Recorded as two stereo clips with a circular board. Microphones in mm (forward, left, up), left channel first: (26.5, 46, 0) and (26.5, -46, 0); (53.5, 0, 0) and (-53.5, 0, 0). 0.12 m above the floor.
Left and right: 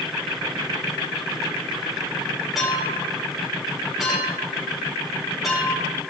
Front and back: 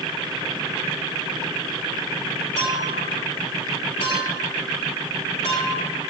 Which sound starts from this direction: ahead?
A clink, at 2.5 s.